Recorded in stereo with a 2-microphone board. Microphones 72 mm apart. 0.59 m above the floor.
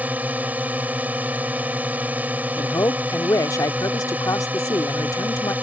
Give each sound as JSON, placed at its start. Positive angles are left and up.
{"t": 0.0, "sound": "a drone", "side_deg": -20}
{"t": 2.6, "sound": "a man speaking", "side_deg": 55}